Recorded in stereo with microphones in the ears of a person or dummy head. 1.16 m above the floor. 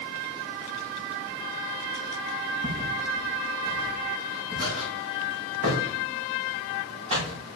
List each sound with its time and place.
2.6 s footsteps: 60° right (ahead or behind), 4.5 m; by 7.4 s 35° right (ahead or behind), 5.5 m